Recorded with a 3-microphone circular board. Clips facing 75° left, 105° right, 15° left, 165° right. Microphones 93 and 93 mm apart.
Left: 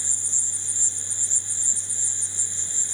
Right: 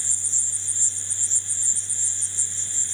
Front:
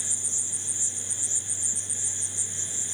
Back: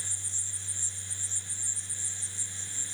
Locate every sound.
0.0 s an insect: straight ahead